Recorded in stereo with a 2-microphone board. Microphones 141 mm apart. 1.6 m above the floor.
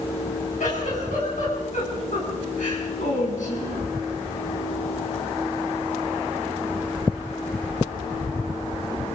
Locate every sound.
0.6 s a giggle: 70° left (ahead or behind), 8.5 m